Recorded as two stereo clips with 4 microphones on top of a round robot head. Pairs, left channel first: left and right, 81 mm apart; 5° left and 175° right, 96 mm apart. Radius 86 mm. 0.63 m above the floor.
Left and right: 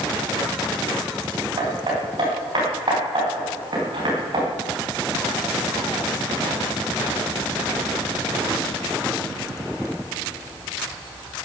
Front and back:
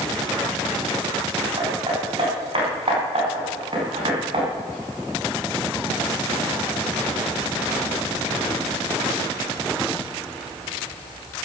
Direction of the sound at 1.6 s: 135° right.